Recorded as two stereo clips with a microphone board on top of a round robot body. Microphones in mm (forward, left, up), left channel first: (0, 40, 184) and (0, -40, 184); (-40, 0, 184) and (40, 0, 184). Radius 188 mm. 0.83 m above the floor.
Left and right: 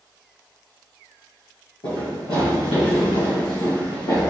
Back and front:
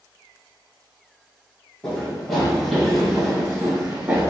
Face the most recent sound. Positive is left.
turn(degrees=70)